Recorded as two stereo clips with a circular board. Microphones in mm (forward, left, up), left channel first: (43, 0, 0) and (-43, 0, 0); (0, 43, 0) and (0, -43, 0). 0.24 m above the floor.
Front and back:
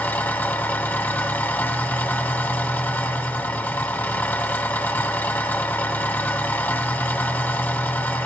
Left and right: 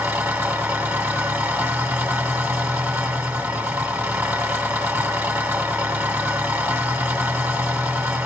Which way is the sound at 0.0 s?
40° right.